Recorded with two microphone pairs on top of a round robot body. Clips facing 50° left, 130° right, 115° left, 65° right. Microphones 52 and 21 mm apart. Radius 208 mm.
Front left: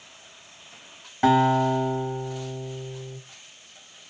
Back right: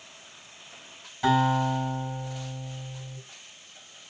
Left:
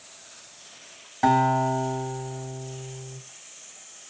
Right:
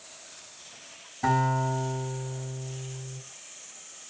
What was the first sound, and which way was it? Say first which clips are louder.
A guitar: front left 4 dB, left 5 dB; 85° left.